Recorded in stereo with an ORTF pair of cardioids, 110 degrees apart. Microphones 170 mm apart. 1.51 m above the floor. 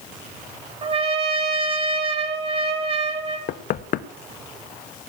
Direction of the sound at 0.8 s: 35° right.